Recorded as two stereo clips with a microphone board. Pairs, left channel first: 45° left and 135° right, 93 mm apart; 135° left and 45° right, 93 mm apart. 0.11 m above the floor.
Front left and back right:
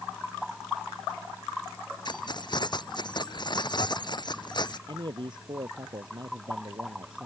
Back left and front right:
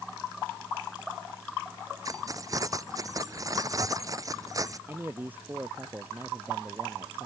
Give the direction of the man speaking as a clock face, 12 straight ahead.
4 o'clock.